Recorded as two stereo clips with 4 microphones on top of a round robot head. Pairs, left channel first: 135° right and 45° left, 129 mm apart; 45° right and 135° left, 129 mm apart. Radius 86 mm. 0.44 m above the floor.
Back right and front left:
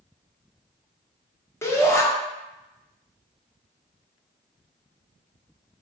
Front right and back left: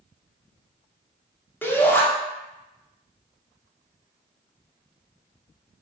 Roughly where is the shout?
Right.